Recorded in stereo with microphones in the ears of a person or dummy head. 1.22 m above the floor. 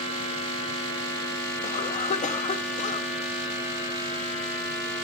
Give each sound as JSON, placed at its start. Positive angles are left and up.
{"t": 1.6, "sound": "a cough", "side_deg": 40, "distance_m": 1.8}